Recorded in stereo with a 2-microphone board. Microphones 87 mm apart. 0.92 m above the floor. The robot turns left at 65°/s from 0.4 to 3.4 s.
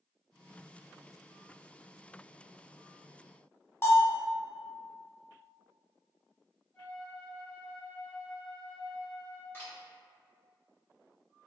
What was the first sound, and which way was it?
A bell, 30° left (ahead or behind).